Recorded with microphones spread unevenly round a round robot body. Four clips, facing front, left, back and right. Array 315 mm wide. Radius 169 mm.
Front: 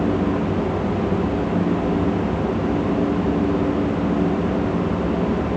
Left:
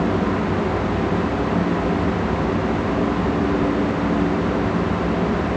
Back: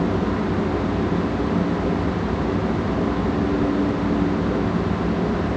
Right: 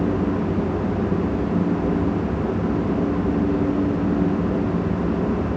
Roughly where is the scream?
No scream in this recording.